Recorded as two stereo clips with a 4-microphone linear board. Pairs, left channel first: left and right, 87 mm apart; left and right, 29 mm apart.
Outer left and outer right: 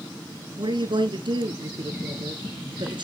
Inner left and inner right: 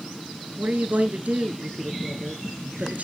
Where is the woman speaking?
60° right (ahead or behind), 2.0 m.